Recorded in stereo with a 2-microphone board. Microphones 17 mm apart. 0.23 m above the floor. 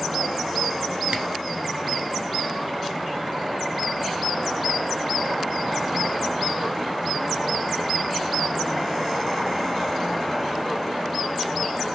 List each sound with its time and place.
1.1 s a camera shutter: 60° right (ahead or behind), 0.9 m